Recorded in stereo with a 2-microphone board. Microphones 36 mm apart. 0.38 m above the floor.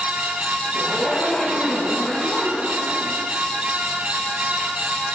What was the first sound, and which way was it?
A zipper, 15° left (ahead or behind).